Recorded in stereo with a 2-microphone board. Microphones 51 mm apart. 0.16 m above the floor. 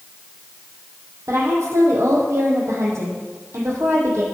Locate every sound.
1.3 s a woman speaking: 70° right (ahead or behind), 5.5 m